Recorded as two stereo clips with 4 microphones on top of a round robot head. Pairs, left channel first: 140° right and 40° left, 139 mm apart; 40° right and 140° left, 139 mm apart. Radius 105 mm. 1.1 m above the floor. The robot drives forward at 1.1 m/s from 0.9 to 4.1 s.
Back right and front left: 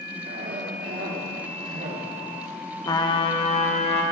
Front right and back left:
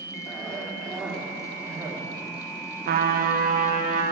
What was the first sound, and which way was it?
A cough, 50° left.